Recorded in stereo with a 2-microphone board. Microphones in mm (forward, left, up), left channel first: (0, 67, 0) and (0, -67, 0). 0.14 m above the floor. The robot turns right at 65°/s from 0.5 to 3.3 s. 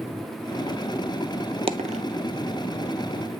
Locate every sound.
1.7 s a dropped coin: 45° right (ahead or behind), 0.5 m; by 2.0 s 65° right (ahead or behind), 0.5 m